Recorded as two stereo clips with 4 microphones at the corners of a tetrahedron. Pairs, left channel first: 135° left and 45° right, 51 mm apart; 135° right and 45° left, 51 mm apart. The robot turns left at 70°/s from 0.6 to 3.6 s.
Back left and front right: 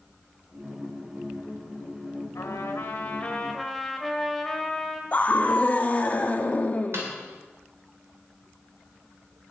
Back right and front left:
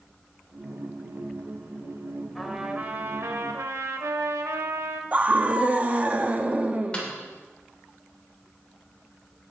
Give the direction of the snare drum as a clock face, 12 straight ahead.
2 o'clock.